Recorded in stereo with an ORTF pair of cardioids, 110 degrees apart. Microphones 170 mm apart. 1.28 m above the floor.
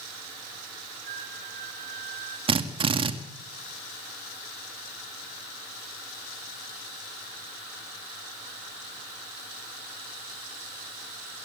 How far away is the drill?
About 2.5 m.